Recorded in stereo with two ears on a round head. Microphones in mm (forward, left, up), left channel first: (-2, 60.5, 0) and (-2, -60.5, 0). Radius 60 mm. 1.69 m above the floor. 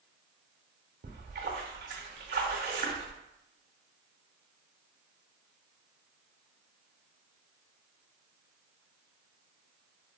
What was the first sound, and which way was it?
A splash, 80° right.